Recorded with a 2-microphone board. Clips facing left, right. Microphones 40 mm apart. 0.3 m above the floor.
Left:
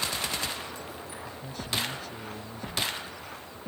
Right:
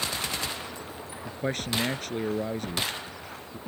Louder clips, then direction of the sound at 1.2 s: Right 8 dB; 65° right (ahead or behind).